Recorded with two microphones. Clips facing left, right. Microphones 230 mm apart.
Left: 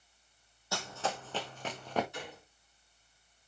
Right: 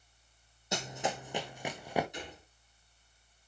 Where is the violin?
I don't hear a violin.